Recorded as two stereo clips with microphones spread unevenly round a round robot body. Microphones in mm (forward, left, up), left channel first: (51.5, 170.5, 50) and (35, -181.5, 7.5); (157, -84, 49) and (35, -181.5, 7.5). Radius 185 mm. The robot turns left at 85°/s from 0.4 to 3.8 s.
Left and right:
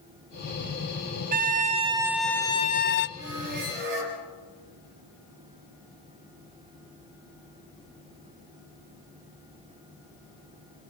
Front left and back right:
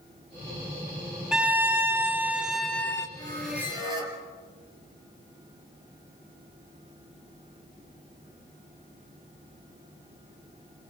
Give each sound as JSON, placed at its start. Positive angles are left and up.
{"t": 1.3, "sound": "a violin", "azimuth_deg": -90, "distance_m": 0.6}
{"t": 3.2, "sound": "a squeak", "azimuth_deg": -25, "distance_m": 5.5}